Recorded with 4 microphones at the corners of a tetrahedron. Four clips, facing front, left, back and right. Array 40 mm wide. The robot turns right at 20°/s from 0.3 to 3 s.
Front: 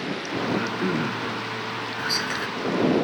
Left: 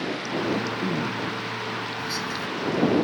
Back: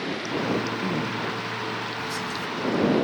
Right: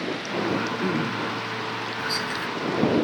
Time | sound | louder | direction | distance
0.5 | throat clearing | right 1 dB, front 4 dB | 45° right | ?
2.0 | whispering | right 2 dB, front 4 dB | 25° right | ?